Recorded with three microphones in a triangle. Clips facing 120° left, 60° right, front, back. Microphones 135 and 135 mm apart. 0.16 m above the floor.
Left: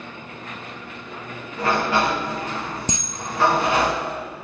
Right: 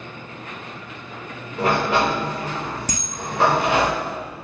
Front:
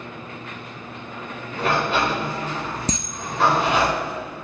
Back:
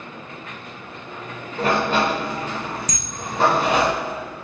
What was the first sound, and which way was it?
A sliding door, 130° right.